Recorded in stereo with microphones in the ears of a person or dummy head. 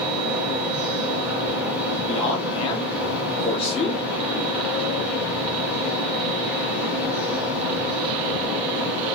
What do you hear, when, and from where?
0.0 s a fan: 5° right (ahead or behind), 2.5 m
2.1 s a man speaking: 35° left (ahead or behind), 1.4 m